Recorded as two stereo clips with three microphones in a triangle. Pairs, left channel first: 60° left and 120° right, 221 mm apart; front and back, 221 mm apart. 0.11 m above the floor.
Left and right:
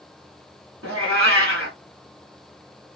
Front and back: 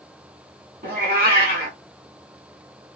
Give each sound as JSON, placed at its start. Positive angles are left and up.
{"t": 0.8, "sound": "a cat meowing", "azimuth_deg": -135, "distance_m": 1.8}